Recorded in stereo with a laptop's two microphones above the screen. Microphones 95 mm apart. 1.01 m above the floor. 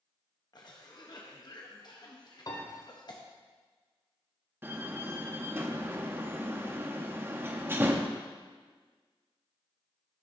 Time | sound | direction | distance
0.5 | a cough | 45° left (ahead or behind) | 0.9 m
2.5 | a piano | 40° left (ahead or behind) | 1.3 m
4.6 | a door slam | 20° right (ahead or behind) | 0.8 m